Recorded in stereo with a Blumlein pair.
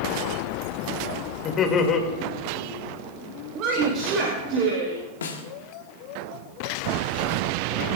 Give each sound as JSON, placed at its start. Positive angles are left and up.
{"t": 1.4, "sound": "laughter", "azimuth_deg": 30, "distance_m": 2.0}
{"t": 3.5, "sound": "a woman speaking", "azimuth_deg": -35, "distance_m": 2.5}
{"t": 5.2, "sound": "a snare drum", "azimuth_deg": 65, "distance_m": 1.6}